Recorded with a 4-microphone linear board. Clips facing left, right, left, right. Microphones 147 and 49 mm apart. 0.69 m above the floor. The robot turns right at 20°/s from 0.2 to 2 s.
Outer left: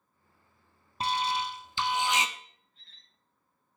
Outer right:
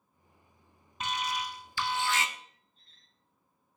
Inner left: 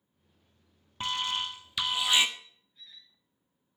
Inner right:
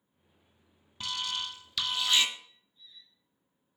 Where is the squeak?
75° left (ahead or behind), 1.4 m.